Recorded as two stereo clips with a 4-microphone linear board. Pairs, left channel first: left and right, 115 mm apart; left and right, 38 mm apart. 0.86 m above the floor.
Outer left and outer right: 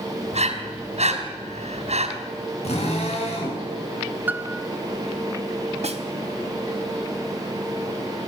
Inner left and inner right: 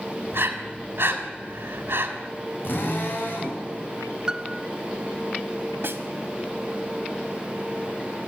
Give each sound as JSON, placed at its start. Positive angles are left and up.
{"t": 0.3, "sound": "breathing", "side_deg": -70, "distance_m": 3.5}
{"t": 2.6, "sound": "a drill", "side_deg": 70, "distance_m": 7.5}
{"t": 4.3, "sound": "a piano", "side_deg": -15, "distance_m": 0.6}
{"t": 5.8, "sound": "a snare drum", "side_deg": -70, "distance_m": 2.0}